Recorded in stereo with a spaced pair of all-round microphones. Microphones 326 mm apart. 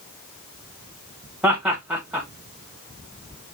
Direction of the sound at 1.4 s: 5° right (ahead or behind).